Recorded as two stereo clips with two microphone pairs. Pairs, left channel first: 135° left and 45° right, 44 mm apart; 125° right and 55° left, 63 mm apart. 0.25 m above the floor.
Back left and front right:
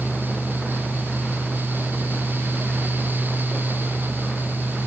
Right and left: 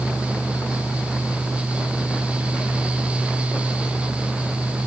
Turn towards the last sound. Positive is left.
No sound to turn to.